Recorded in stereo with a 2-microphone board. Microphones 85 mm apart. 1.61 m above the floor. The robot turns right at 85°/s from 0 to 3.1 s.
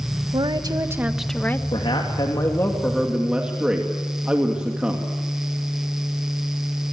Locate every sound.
0.3 s a woman speaking: 80° right, 1.6 m; by 1.6 s 30° left, 1.6 m
1.7 s a man speaking: 70° left, 2.5 m; by 5.1 s 170° right, 2.5 m